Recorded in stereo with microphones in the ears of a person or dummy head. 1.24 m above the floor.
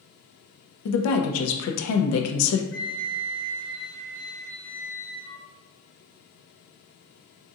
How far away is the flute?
About 1.5 m.